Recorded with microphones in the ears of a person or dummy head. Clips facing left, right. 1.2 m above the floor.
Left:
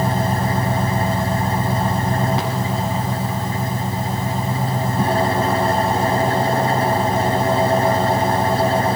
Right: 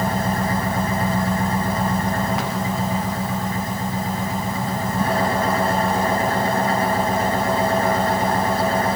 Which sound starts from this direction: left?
An engine running, at 0.0 s.